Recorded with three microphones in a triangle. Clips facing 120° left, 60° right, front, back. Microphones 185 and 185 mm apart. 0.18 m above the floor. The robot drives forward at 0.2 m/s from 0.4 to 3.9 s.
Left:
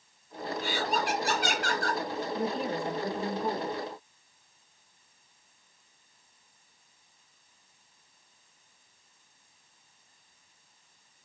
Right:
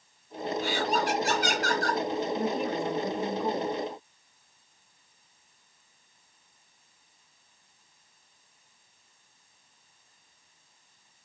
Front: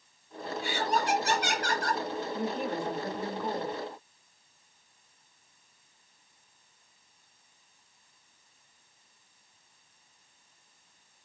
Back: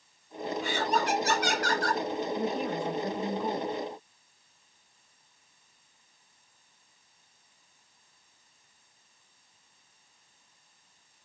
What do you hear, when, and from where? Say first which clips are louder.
0.6 s laughter: right 2 dB, even; 40° right, 2 m; by 2.0 s 50° right, 2 m
2.3 s a woman speaking: right 2 dB, even; 100° left, 1.5 m; by 3.8 s 115° left, 1.5 m